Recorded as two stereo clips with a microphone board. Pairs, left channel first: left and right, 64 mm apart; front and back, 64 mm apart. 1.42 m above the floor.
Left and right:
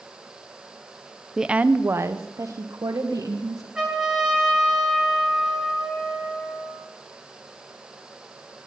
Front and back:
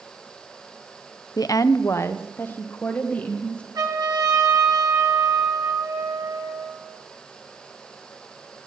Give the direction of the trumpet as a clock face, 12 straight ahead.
6 o'clock.